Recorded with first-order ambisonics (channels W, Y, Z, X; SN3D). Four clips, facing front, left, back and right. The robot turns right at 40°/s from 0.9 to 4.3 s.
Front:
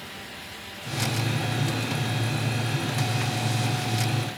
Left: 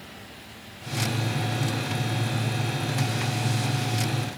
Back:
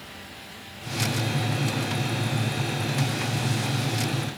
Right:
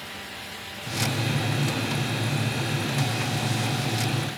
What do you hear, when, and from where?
Only background noise.